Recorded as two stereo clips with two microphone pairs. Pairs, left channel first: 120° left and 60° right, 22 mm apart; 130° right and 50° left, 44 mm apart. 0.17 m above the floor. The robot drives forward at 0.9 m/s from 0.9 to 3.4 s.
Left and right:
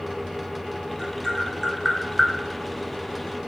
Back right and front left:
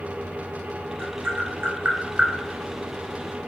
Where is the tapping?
10° left, 1.7 m; by 3.5 s 160° left, 0.8 m.